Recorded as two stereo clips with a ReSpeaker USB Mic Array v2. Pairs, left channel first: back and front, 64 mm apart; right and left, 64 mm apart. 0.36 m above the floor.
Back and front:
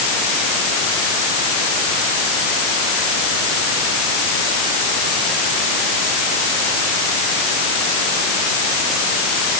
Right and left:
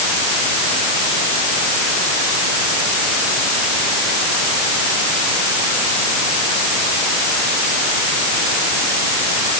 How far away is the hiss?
I don't hear a hiss.